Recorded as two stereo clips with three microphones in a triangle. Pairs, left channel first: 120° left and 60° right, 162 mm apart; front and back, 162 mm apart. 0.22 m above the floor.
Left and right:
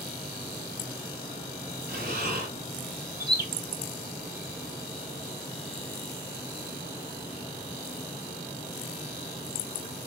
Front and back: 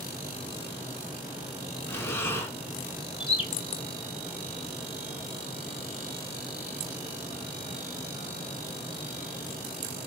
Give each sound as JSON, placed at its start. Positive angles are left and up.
{"t": 1.9, "sound": "breathing", "azimuth_deg": -75, "distance_m": 0.7}
{"t": 3.2, "sound": "a bird", "azimuth_deg": -55, "distance_m": 0.6}